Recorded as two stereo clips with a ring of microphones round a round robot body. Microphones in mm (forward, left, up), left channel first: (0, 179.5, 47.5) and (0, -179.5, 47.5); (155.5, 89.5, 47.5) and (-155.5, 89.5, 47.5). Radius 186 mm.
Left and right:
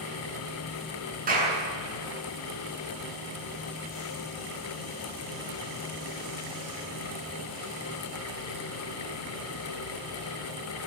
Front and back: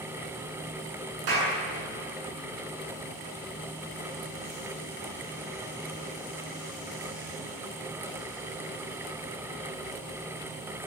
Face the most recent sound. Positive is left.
turn(degrees=-160)